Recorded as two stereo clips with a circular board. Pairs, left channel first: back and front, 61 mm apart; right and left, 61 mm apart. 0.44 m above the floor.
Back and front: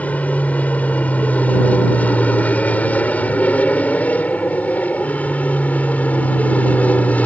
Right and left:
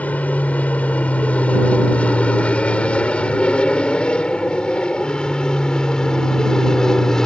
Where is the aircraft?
135° right; by 7.3 s 160° right.